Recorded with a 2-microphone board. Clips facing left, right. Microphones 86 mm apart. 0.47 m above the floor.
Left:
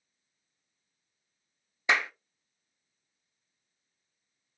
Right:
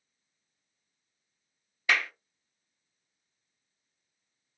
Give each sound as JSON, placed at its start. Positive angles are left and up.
{"t": 1.9, "sound": "a clap", "side_deg": 20, "distance_m": 0.5}